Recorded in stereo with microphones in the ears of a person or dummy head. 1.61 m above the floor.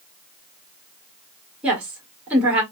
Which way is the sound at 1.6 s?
10° right (ahead or behind).